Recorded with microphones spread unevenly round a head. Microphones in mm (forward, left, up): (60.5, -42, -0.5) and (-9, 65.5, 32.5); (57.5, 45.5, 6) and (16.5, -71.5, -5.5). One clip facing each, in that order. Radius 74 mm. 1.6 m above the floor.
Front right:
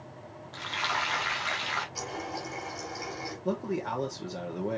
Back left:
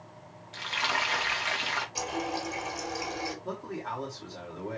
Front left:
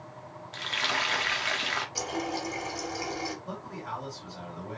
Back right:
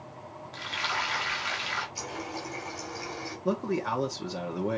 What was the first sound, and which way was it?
Frying, 45° left.